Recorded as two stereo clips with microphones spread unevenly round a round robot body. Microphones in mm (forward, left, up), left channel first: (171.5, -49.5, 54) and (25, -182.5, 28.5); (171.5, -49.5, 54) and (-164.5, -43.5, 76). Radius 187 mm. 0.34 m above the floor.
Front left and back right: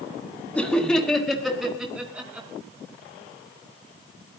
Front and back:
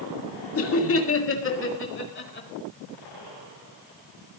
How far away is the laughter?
About 2.5 m.